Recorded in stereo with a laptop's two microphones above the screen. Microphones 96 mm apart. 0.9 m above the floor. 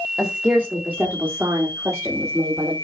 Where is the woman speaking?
10° right (ahead or behind), 2.5 m; by 2.8 s 35° right (ahead or behind), 3.5 m.